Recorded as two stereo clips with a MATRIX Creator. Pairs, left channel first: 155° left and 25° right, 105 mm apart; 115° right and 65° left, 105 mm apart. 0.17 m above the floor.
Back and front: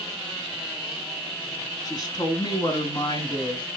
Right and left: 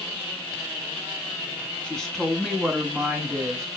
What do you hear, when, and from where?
1.8 s a woman speaking: 175° left, 1.9 m; by 3.7 s 120° left, 2.5 m